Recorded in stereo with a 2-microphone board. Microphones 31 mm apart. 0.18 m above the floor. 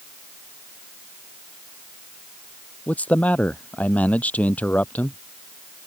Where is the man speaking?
60° left (ahead or behind).